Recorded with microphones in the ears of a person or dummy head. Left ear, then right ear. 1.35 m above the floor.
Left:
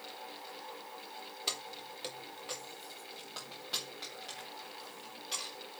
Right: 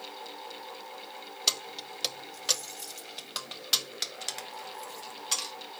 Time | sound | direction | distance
1.5 | keys jangling | 20° right (ahead or behind) | 0.9 m